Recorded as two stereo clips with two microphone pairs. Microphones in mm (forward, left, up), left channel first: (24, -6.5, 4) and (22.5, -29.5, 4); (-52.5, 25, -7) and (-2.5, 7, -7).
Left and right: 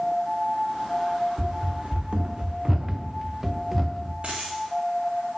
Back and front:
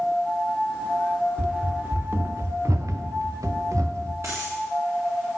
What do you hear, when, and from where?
1.4 s running footsteps: 100° right, 0.7 m; by 4.1 s 5° right, 1.4 m
4.2 s a dropped coin: 50° right, 2.5 m